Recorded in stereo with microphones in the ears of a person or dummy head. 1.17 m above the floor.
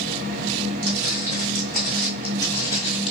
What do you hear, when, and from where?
0.8 s footsteps: 20° right (ahead or behind), 1.2 m; by 3.1 s 35° left (ahead or behind), 1.4 m